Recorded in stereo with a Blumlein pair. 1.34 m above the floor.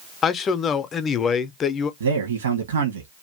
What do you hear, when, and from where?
0.2 s a man speaking: 25° left, 0.5 m
2.0 s a man speaking: 65° right, 1.1 m